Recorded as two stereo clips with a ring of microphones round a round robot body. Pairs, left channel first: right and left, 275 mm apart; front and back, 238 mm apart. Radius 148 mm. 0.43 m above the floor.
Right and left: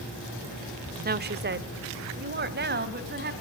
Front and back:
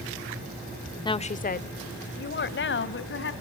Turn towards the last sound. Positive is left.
turn(degrees=35)